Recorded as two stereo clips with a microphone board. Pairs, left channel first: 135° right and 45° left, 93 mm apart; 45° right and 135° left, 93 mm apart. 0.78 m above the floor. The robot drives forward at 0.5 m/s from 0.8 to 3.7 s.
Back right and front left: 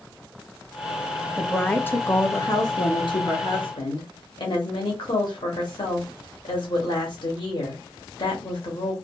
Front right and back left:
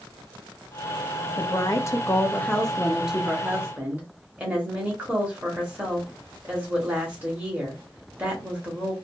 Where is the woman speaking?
50° right, 0.7 m; by 8.9 s 155° right, 1.0 m.